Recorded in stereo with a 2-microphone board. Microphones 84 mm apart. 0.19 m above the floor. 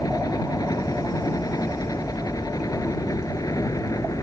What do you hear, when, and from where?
0.0 s a helicopter: 55° left (ahead or behind); by 4.2 s 50° left (ahead or behind)